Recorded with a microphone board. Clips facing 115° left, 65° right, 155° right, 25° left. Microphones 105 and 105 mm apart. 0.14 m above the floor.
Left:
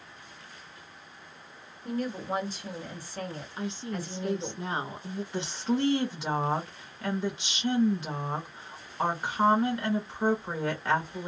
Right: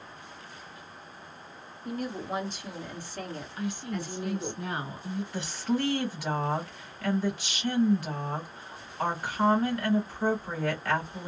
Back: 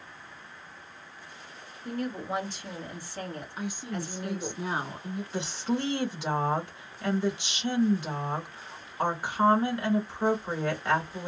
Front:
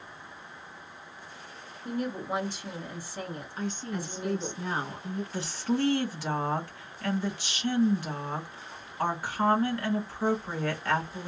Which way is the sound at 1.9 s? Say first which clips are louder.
Left 2 dB, front 1 dB; 90° left.